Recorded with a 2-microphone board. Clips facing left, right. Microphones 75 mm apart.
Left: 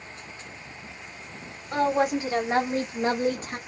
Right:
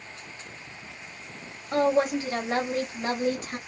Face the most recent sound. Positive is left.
turn(degrees=35)  # may be behind; listen again after turning